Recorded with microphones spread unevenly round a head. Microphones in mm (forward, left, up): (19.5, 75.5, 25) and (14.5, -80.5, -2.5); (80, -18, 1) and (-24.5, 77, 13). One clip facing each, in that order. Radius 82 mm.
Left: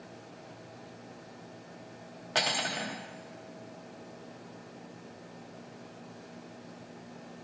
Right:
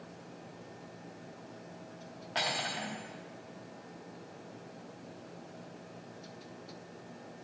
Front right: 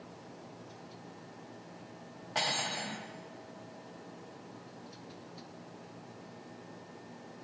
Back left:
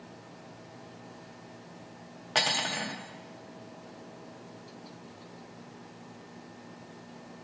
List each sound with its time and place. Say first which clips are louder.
2.4 s cutlery clinking: left 3 dB, back left 4 dB; 125° left, 0.6 m